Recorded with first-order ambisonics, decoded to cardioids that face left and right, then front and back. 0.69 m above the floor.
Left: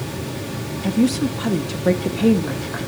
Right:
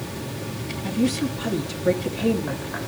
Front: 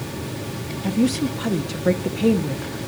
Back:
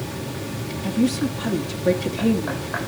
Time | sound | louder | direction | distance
0.8 | a woman speaking | left 4 dB, front 1 dB | 60° left | 0.7 m